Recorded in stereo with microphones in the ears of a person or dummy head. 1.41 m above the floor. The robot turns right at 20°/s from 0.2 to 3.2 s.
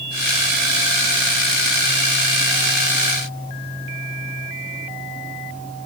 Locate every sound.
Only background noise.